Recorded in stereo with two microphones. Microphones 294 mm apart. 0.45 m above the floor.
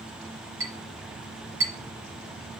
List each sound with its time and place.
0.6 s a clink: 45° right (ahead or behind), 5.5 m